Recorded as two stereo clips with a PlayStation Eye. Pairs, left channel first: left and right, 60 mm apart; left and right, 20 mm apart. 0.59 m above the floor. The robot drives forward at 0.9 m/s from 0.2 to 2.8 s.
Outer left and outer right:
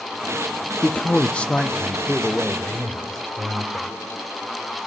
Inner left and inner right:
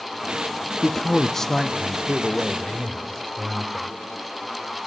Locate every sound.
0.8 s a man speaking: 25° left (ahead or behind), 0.6 m; by 4.0 s 10° left (ahead or behind), 1.7 m